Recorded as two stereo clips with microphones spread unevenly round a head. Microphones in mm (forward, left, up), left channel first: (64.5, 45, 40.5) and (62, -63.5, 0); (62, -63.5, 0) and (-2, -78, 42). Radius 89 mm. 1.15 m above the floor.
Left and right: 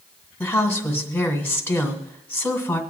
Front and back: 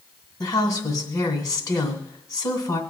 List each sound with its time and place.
0.4 s a woman speaking: 10° left, 2 m